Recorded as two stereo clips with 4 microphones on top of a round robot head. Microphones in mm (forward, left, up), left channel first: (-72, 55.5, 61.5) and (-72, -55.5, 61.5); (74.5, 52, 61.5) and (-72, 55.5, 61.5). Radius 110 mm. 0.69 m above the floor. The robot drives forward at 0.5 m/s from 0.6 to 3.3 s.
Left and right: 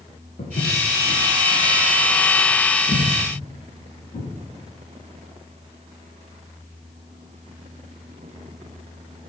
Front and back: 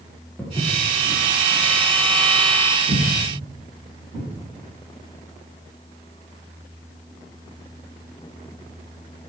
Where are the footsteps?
85° left, 5.5 m; by 4.3 s 115° left, 8 m.